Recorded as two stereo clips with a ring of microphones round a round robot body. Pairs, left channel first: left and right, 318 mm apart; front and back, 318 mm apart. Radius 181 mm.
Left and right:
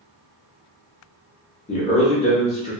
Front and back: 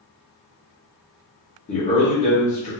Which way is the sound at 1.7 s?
45° left.